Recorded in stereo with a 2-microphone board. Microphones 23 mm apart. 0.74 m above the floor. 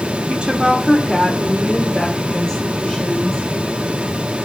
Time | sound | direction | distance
0.3 | a woman speaking | 55° right (ahead or behind) | 1.9 m